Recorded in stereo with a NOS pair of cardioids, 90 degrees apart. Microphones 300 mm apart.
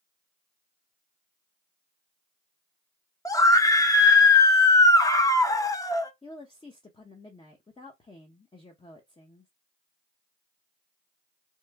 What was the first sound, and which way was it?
A scream, 10° left.